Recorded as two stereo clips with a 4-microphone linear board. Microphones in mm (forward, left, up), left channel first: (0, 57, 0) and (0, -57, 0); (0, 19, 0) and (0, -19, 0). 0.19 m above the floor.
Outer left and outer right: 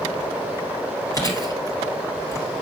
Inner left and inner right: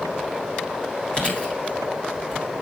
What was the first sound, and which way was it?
Chewing, 30° left (ahead or behind).